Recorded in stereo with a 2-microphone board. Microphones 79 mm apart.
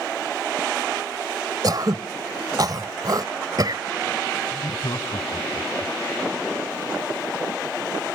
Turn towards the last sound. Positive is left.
turn(degrees=75)  # may be behind; listen again after turning